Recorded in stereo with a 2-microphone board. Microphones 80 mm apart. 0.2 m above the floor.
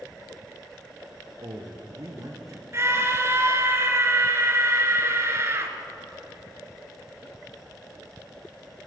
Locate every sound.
1.4 s a man speaking: 60° right (ahead or behind), 4.5 m; by 2.6 s 40° right (ahead or behind), 4.5 m
2.7 s a scream: 35° right (ahead or behind), 3.5 m